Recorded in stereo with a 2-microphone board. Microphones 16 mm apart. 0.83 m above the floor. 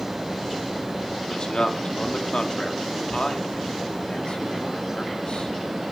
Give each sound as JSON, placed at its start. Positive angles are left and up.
{"t": 1.3, "sound": "a man speaking", "side_deg": 60, "distance_m": 2.0}